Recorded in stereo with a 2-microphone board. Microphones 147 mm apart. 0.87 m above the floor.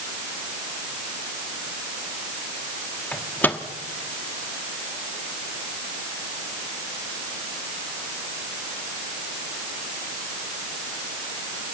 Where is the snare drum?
I don't hear a snare drum.